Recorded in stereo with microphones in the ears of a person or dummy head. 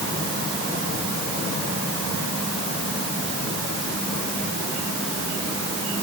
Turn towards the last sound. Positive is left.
No sound to turn to.